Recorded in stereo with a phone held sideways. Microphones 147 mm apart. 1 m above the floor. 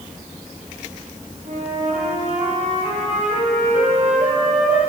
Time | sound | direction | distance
1.4 | a flute | 60° right (ahead or behind) | 5 m